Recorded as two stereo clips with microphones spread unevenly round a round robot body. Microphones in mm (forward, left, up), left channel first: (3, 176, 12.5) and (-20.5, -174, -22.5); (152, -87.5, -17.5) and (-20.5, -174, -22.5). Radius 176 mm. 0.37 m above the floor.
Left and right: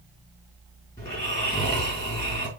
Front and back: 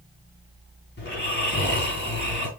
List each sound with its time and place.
1.0 s snoring: 5° left, 5 m